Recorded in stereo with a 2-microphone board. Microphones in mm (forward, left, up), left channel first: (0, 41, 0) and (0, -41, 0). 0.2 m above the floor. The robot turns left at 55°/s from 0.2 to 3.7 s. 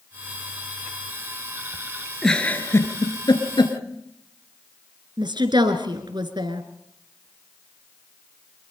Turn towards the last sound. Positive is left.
turn(degrees=-65)  # may be behind; listen again after turning